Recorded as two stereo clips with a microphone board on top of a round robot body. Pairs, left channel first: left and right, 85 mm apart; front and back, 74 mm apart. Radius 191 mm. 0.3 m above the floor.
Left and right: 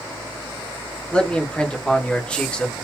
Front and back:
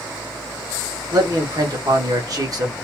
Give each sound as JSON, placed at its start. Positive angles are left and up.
{"t": 1.1, "sound": "a man speaking", "azimuth_deg": 165, "distance_m": 1.9}